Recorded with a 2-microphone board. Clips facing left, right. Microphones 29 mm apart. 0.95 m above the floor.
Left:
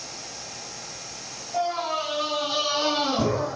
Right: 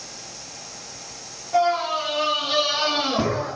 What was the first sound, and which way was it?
A scream, 85° right.